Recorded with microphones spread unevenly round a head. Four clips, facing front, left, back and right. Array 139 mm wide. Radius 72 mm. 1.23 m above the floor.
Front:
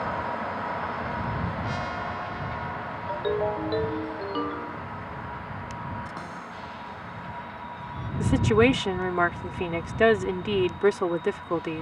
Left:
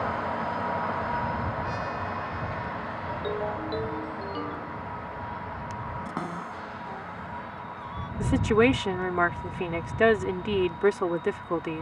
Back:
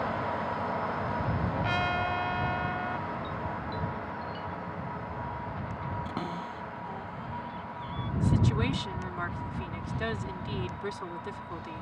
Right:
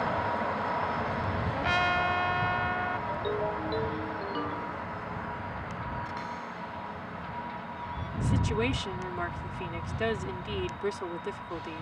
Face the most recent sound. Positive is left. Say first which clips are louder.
# left 9 dB, front 9 dB
turn(degrees=30)